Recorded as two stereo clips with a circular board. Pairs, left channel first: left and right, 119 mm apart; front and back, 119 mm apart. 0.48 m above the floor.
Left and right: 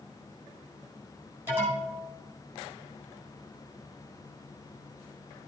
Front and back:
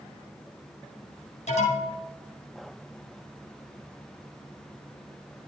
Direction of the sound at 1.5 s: 15° right.